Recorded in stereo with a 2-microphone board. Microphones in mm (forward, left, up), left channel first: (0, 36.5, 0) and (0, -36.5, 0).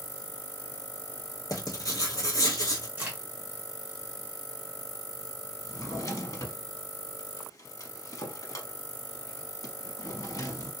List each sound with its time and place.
1.5 s writing: 50° left (ahead or behind), 1.1 m
3.0 s a crack: 20° right (ahead or behind), 1.6 m
5.6 s a drawer: 50° left (ahead or behind), 0.7 m